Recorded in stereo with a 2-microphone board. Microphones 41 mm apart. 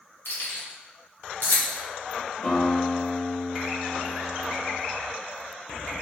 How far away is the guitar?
About 1.7 m.